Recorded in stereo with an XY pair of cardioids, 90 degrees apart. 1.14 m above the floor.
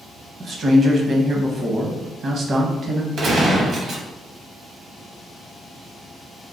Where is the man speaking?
50° right, 1.0 m.